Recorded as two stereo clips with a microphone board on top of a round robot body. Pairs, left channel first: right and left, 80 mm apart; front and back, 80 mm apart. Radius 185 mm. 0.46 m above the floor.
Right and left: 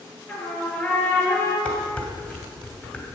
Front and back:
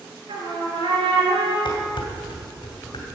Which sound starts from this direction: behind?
A trumpet, at 0.3 s.